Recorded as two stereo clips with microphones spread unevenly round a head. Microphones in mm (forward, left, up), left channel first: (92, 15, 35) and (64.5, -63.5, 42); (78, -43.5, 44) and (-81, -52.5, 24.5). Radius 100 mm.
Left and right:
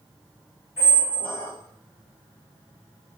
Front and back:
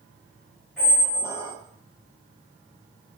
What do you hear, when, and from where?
0.8 s a squeak: 85° left, 1.2 m